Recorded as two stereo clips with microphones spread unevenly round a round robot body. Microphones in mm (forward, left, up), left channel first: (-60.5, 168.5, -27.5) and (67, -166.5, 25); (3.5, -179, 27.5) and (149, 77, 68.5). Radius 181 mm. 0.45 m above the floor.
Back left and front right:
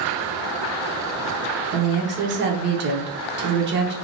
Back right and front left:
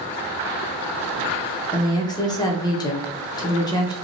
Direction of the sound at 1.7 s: 95° right.